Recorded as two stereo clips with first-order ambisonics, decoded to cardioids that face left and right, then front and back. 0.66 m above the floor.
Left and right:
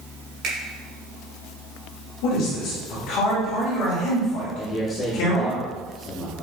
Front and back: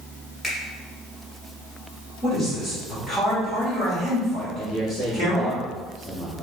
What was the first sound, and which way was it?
A finger snap, 95° right.